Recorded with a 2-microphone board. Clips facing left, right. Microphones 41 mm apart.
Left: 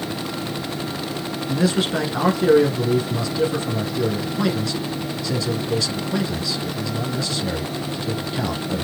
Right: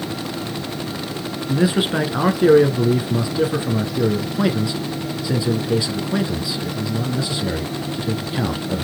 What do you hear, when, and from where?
1.5 s a man speaking: 15° right (ahead or behind), 1.1 m